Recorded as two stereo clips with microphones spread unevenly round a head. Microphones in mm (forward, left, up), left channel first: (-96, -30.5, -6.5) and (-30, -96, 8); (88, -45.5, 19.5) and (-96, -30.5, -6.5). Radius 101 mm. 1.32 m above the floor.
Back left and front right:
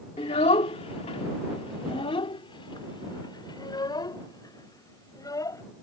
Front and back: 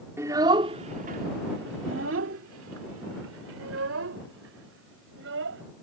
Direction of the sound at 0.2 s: 95° left.